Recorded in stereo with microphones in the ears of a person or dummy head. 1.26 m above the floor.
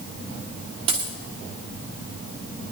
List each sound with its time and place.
0.9 s a dropped coin: 35° right (ahead or behind), 1.4 m